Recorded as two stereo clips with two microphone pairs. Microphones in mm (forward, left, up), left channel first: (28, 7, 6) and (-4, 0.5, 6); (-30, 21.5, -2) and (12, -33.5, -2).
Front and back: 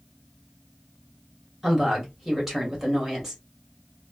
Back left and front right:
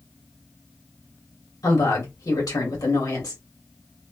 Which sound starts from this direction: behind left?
A woman speaking, at 1.6 s.